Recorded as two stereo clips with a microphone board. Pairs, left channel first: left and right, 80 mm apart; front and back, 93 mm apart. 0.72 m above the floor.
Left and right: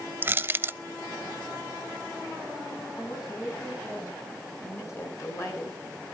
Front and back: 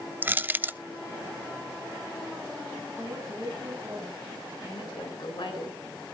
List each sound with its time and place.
0.2 s crushing: 125° right, 0.5 m
3.0 s a woman speaking: 130° left, 5.5 m
4.6 s a woman speaking: 40° left, 9.5 m